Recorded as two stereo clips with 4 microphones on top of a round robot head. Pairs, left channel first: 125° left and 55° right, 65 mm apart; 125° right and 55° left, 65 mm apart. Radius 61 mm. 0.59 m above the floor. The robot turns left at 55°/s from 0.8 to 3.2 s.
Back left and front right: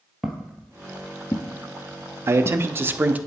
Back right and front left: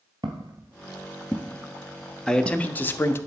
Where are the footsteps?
30° left, 0.7 m; by 3.3 s 55° left, 1.7 m.